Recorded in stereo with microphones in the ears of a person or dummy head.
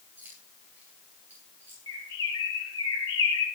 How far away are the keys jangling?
About 9.5 m.